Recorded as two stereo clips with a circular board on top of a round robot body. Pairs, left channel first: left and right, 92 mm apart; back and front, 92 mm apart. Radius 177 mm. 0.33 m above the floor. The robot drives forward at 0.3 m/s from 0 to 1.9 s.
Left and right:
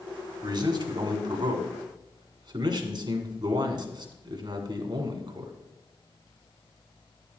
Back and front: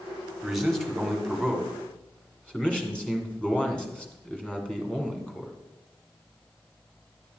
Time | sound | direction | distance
0.4 | a man speaking | 90° right | 2.0 m